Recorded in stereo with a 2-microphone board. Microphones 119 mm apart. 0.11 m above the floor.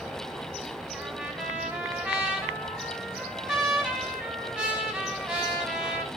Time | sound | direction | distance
0.9 | a trumpet | 10° right (ahead or behind) | 6.5 m